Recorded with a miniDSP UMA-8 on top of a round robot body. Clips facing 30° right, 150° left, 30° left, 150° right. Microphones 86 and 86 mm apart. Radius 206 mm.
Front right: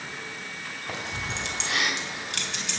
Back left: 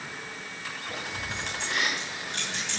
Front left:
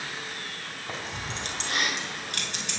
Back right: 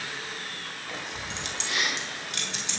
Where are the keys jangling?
25° right, 3.5 m; by 2.8 s 5° right, 4.5 m.